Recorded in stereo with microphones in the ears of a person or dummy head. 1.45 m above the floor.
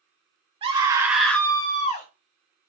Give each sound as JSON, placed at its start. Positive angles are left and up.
{"t": 0.6, "sound": "a scream", "side_deg": -30, "distance_m": 1.4}